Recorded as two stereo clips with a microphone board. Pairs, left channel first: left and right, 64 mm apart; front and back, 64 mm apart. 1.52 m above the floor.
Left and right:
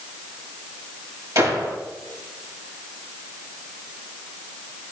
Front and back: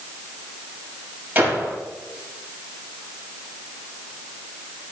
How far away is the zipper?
No zipper in this recording.